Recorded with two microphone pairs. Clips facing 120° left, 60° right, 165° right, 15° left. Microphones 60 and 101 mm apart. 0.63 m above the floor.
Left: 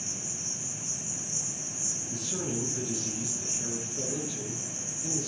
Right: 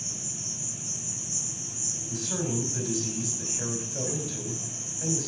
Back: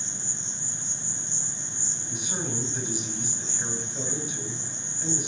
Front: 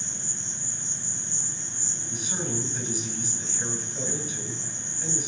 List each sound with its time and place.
0.0 s an insect: 60° right, 6 m
2.1 s a man speaking: 75° right, 3.5 m